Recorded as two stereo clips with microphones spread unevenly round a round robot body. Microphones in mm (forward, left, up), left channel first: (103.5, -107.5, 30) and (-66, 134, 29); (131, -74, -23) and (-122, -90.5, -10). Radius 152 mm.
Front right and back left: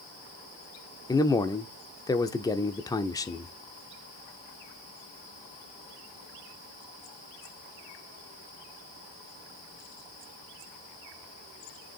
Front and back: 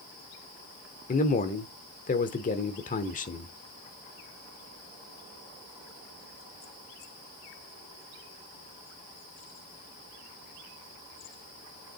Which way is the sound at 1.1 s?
15° left.